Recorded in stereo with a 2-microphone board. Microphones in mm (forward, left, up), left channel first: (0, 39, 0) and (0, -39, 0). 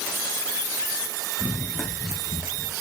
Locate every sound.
1.4 s running footsteps: 20° left (ahead or behind), 1.8 m; by 2.7 s 20° right (ahead or behind), 2.5 m